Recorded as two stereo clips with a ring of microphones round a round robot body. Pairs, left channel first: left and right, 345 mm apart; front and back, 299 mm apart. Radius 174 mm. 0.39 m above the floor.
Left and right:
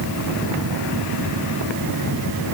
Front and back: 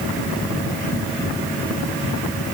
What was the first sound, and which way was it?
Only background noise.